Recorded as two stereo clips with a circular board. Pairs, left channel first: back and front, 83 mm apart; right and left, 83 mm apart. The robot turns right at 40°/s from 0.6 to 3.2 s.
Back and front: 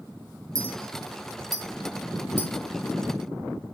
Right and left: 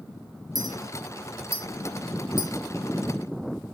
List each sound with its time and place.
0.6 s a clink: 50° left, 0.8 m; by 3.8 s 150° left, 0.8 m